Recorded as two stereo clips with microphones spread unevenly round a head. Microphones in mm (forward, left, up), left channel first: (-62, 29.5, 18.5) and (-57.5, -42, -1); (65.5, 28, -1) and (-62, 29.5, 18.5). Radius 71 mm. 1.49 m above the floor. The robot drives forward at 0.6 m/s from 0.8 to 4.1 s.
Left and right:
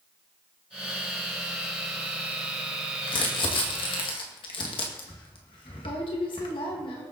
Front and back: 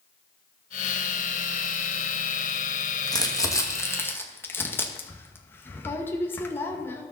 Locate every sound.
3.1 s crumpling: 55° left, 2 m; by 7.1 s 70° left, 1.9 m